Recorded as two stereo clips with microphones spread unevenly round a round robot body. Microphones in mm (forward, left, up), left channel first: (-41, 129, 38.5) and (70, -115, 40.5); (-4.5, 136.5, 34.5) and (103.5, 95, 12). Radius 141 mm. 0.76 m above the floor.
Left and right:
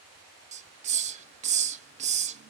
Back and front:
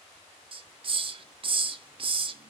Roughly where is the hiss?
Ahead.